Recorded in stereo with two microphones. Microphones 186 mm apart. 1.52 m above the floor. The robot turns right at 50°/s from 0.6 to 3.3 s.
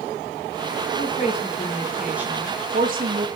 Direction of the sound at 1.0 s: 125° left.